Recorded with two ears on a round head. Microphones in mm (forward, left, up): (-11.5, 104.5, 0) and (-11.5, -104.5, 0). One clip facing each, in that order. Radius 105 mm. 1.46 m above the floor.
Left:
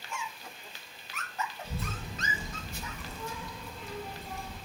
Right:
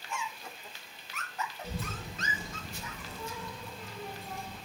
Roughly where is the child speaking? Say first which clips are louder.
Even; right.